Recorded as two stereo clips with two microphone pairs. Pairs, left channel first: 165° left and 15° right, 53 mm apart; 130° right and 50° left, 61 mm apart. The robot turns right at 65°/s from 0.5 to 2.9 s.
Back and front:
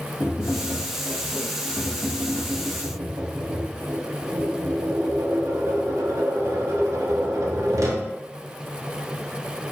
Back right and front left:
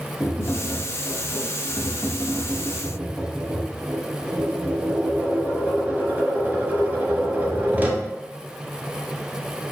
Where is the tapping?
165° right, 0.7 m; by 8.1 s 10° right, 0.7 m.